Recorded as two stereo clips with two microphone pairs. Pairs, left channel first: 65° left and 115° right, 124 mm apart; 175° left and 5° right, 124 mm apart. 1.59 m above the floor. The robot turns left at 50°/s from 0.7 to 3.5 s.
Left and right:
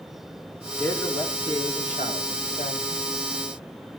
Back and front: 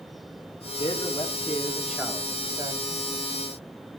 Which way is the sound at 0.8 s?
140° left.